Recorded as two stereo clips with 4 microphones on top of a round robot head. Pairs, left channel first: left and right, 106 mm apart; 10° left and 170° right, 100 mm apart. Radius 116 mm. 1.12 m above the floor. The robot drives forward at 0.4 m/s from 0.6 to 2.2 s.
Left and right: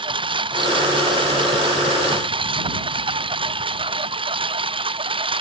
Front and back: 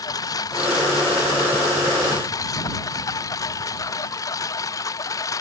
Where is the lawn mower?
50° right; by 5.4 s 55° right.